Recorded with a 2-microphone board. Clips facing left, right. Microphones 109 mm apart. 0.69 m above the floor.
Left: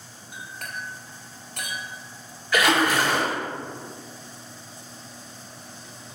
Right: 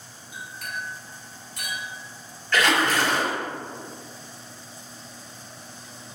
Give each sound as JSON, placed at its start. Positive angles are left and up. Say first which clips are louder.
{"t": 0.3, "sound": "a clink", "louder": "right 1 dB", "side_deg": 65, "distance_m": 1.8}
{"t": 2.5, "sound": "a splash", "louder": "left 1 dB", "side_deg": 10, "distance_m": 1.7}